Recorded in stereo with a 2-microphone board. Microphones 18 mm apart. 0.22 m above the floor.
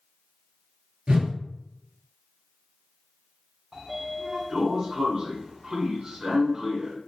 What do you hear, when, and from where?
1.1 s a whoosh: 60° right (ahead or behind), 0.9 m
3.7 s a sliding door: 30° right (ahead or behind), 0.7 m